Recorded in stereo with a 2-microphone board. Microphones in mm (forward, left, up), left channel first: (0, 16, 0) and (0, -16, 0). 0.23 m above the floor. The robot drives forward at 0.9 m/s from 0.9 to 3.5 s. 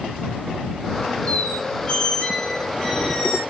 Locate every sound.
1.3 s a squeak: 50° left (ahead or behind), 0.8 m; by 3.4 s 15° left (ahead or behind), 2.5 m